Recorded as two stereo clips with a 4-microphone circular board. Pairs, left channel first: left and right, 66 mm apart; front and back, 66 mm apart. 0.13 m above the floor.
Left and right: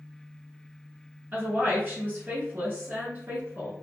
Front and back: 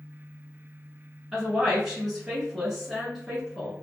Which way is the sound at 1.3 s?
90° right.